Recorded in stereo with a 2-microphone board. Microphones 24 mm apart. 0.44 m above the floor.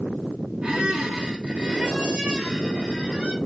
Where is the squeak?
50° right (ahead or behind), 4 m.